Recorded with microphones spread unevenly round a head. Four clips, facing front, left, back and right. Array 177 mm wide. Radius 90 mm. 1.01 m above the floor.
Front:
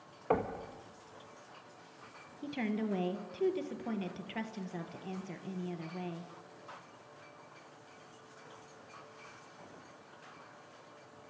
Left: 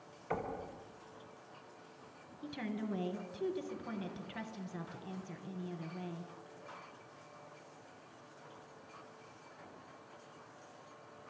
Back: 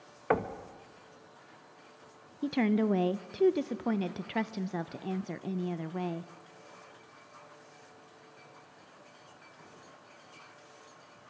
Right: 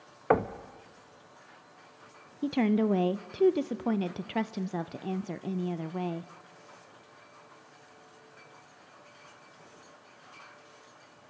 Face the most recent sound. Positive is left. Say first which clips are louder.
# right 15 dB, back 8 dB
turn(degrees=-115)